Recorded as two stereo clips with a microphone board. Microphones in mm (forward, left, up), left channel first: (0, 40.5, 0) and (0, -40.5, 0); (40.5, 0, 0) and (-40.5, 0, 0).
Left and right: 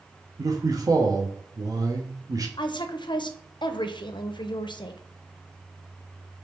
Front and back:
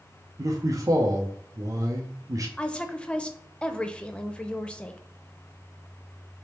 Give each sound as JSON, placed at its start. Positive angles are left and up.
{"t": 0.4, "sound": "a man speaking", "azimuth_deg": -135, "distance_m": 0.7}
{"t": 2.6, "sound": "a woman speaking", "azimuth_deg": 75, "distance_m": 0.5}